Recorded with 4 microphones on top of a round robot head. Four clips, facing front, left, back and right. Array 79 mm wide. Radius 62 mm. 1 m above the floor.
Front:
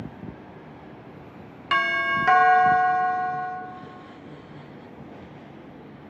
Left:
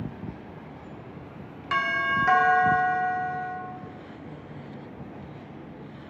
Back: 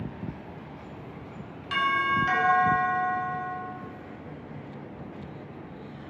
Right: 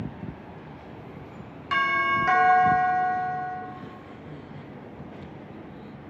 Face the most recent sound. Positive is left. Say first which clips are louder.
# right 2 dB, front 2 dB
turn(degrees=5)